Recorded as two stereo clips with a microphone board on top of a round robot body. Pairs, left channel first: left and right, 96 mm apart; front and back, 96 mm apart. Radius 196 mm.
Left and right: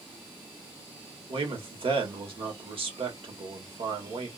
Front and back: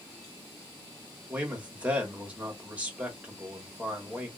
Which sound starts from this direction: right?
A man speaking, at 1.3 s.